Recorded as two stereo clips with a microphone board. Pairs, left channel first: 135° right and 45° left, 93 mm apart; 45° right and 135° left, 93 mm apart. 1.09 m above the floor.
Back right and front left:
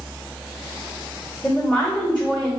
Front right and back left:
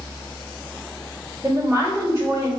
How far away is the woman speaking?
About 1.6 m.